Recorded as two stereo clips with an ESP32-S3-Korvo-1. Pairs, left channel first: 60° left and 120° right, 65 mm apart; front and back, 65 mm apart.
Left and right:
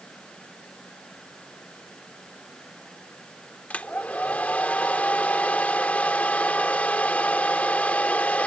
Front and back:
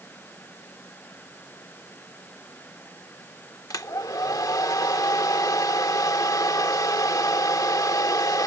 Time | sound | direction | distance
3.7 | a hair dryer | 5° right | ?